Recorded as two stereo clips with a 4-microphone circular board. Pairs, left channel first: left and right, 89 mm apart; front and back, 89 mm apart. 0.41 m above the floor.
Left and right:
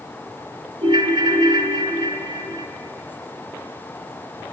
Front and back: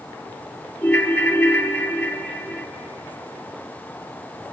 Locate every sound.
0.8 s a ringtone: 75° right, 1.0 m